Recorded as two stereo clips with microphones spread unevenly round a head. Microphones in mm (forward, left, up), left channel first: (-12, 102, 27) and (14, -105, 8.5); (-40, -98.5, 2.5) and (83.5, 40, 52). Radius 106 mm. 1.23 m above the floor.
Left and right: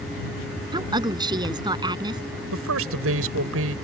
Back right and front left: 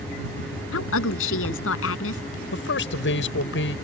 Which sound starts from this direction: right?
A man speaking, at 2.5 s.